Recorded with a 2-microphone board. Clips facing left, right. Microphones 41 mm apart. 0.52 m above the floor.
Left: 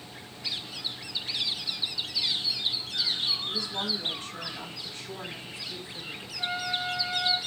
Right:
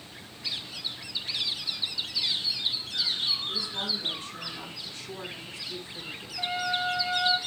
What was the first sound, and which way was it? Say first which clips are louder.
A woman speaking: left 1 dB; 50° left (ahead or behind).